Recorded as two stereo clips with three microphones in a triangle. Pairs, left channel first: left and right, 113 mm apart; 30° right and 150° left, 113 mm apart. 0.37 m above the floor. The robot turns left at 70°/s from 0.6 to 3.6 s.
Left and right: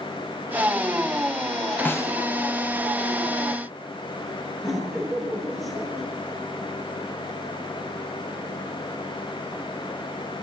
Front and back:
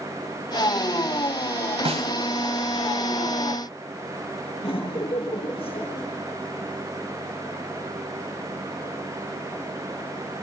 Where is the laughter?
10° left, 6 m.